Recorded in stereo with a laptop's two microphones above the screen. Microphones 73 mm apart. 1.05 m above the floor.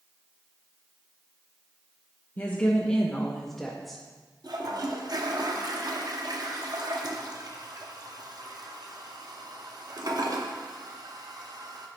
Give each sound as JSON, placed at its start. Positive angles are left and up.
{"t": 2.4, "sound": "a woman speaking", "side_deg": 25, "distance_m": 1.0}
{"t": 4.4, "sound": "a toilet flushing", "side_deg": -60, "distance_m": 0.8}